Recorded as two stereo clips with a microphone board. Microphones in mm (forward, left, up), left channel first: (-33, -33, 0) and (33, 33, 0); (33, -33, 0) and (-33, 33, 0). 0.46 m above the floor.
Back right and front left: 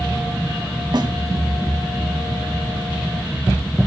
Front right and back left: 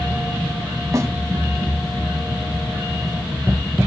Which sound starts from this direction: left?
A snare drum, at 0.9 s.